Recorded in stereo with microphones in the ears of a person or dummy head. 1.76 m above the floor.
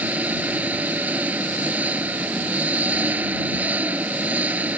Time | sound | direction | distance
0.0 | an engine running | 10° right (ahead or behind) | ?